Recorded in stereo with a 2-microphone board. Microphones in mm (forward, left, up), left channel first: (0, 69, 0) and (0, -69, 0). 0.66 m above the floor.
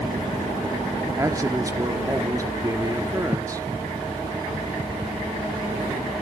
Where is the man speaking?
25° right (ahead or behind), 1.3 m.